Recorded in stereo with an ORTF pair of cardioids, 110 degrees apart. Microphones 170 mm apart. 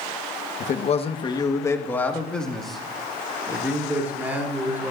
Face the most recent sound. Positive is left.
turn(degrees=-15)